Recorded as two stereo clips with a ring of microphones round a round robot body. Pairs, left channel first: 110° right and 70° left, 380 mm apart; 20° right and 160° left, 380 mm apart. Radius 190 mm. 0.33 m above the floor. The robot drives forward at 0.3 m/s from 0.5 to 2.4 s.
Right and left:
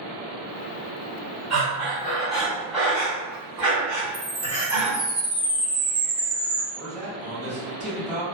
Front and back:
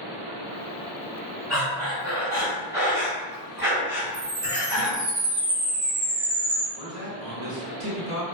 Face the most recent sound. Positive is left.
turn(degrees=165)